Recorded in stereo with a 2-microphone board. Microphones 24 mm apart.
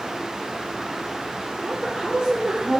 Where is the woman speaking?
65° right (ahead or behind), 3 m; by 2.8 s 50° right (ahead or behind), 1.9 m.